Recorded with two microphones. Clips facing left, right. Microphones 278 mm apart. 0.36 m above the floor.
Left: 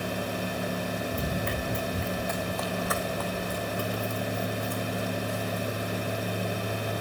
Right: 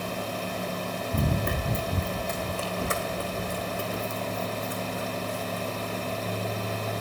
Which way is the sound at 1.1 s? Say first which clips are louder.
Right 2 dB; 65° right (ahead or behind).